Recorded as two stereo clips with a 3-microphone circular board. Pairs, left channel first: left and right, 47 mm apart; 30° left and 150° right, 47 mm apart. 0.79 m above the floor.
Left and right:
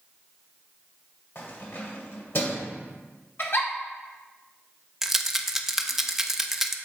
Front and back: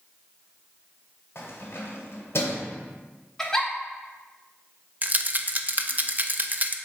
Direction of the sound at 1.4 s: 60° left.